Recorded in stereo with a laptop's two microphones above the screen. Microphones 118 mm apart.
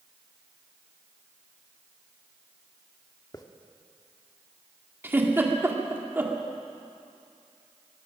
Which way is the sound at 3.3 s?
30° left (ahead or behind).